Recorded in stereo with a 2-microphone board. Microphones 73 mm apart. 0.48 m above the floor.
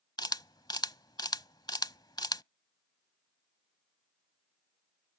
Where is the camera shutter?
75° left (ahead or behind).